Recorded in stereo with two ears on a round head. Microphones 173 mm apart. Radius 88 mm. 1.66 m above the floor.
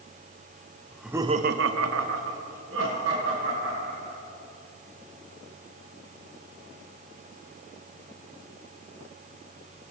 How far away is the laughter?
About 0.8 m.